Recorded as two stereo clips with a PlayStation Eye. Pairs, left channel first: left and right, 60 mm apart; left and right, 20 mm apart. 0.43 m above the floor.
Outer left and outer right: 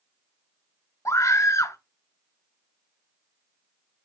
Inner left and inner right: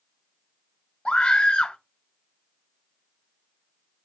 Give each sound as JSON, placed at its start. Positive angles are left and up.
{"t": 1.1, "sound": "a scream", "side_deg": 55, "distance_m": 2.0}